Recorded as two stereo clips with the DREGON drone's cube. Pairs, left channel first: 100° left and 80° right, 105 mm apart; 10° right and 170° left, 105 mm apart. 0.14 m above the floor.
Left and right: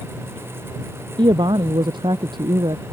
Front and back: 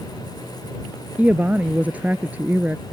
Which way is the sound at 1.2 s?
115° right.